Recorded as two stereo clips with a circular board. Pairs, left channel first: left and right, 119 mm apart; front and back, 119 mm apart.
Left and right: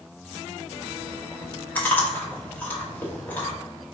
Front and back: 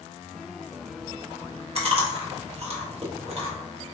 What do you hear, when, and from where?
1.8 s chewing: 165° left, 0.9 m